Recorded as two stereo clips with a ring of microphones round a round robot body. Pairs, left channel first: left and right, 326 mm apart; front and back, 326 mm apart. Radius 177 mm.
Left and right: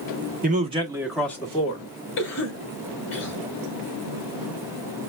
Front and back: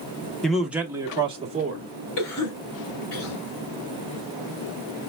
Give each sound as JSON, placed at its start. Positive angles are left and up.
{"t": 0.4, "sound": "a man speaking", "azimuth_deg": -85, "distance_m": 1.0}
{"t": 2.2, "sound": "a cough", "azimuth_deg": 35, "distance_m": 2.5}